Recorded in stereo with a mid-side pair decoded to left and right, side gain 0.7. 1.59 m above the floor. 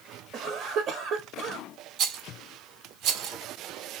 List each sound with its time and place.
0.3 s a cough: 50° right, 0.6 m
2.0 s a rattle: 55° right, 0.5 m